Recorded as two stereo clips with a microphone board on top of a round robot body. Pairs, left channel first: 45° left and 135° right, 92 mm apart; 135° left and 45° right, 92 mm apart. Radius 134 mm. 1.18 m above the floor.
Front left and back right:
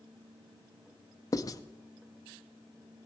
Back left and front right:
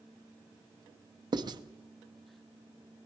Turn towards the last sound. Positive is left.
turn(degrees=-5)